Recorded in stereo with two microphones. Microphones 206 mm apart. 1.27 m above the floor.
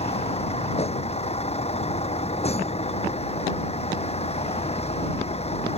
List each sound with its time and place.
0.0 s a vehicle: 30° left (ahead or behind)